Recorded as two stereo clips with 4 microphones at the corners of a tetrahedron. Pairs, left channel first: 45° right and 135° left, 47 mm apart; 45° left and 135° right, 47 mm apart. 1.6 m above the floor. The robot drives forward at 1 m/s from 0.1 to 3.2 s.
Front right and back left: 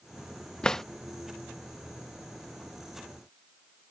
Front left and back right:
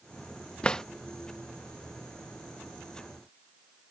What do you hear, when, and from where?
0.6 s a drawer: 5° left; by 0.8 s 15° left